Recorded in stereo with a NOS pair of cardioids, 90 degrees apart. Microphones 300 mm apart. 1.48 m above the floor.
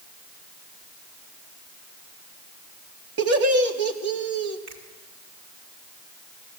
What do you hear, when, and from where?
3.2 s laughter: 55° right, 3.5 m
4.7 s a finger snap: 65° right, 5.5 m